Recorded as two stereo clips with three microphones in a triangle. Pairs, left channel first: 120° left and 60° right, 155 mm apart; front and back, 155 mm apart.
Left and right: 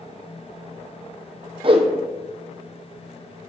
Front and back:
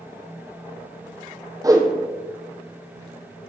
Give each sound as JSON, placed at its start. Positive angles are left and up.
{"t": 1.6, "sound": "a whoosh", "azimuth_deg": -115, "distance_m": 1.3}